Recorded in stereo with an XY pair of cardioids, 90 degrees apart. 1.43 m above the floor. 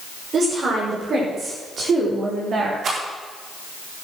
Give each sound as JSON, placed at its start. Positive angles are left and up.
{"t": 0.3, "sound": "a woman speaking", "azimuth_deg": -55, "distance_m": 6.5}
{"t": 2.8, "sound": "a rattle", "azimuth_deg": -60, "distance_m": 4.5}